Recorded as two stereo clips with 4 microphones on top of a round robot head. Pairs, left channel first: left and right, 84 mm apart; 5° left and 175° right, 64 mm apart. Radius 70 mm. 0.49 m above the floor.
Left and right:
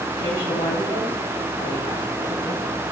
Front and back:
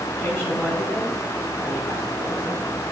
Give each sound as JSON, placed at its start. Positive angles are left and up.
{"t": 0.2, "sound": "a woman speaking", "azimuth_deg": 60, "distance_m": 7.5}